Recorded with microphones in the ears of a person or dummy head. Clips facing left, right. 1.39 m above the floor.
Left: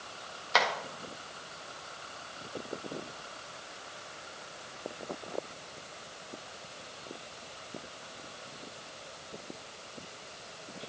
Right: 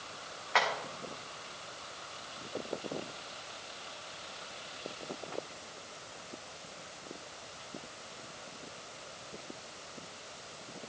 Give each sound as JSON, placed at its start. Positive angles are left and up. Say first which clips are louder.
{"t": 0.5, "sound": "tapping", "louder": "left 2 dB", "side_deg": 50, "distance_m": 1.5}